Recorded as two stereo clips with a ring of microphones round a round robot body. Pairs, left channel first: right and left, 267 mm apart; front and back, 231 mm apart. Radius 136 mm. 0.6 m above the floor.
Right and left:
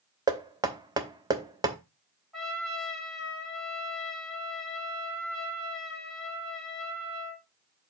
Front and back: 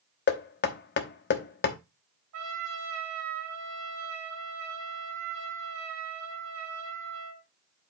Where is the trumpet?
Straight behind, 3.5 m.